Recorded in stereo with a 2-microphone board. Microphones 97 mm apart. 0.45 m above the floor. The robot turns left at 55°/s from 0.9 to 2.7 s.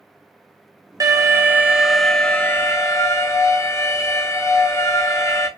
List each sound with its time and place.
1.0 s an alarm: 125° right, 0.6 m; by 5.5 s 140° left, 0.6 m